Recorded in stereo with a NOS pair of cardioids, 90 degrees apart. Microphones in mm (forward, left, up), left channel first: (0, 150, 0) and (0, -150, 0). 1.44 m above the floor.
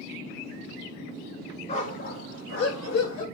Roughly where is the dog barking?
Ahead.